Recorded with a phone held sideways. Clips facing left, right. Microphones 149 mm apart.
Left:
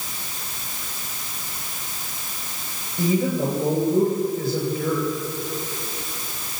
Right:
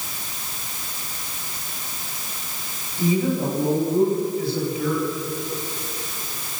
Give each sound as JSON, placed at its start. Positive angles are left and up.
{"t": 3.0, "sound": "a woman speaking", "side_deg": 45, "distance_m": 7.0}